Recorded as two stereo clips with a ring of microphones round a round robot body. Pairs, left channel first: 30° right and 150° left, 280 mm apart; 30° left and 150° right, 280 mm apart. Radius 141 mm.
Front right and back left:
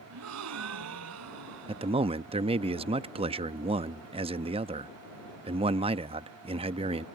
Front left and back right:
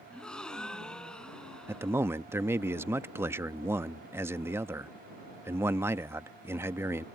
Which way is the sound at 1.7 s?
145° left.